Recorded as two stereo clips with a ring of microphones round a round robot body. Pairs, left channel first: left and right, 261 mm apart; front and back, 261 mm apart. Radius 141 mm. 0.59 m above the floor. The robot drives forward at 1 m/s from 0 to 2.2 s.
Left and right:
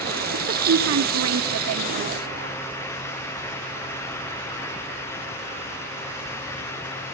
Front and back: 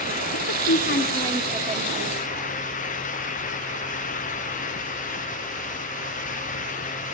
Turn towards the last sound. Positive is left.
turn(degrees=-140)